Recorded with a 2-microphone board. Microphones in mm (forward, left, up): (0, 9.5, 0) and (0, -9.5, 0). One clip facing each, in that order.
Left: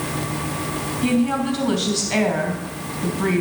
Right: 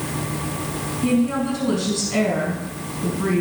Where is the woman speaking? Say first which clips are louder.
Even; 70° left (ahead or behind), 3.5 m.